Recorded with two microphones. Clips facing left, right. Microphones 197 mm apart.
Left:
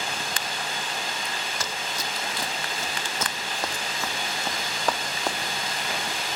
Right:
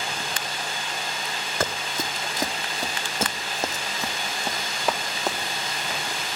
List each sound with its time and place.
1.6 s running footsteps: 55° right (ahead or behind), 1.2 m; by 6.4 s centre (ahead or behind), 2.5 m